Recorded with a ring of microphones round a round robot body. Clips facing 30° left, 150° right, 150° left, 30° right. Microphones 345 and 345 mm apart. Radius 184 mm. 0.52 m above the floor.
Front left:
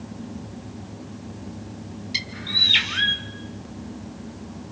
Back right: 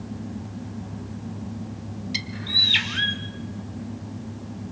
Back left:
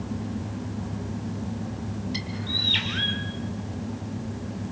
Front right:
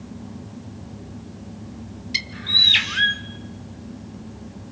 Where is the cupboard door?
I don't hear a cupboard door.